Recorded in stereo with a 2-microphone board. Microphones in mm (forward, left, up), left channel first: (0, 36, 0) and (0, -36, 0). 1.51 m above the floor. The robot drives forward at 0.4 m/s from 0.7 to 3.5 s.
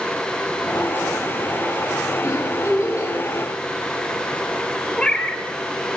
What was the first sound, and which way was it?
A giggle, 45° left (ahead or behind).